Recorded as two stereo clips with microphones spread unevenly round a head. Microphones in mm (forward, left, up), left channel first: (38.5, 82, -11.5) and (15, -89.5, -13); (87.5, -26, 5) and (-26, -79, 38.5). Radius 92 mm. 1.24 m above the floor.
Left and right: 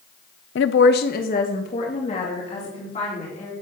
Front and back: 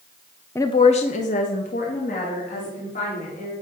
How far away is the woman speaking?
About 0.6 m.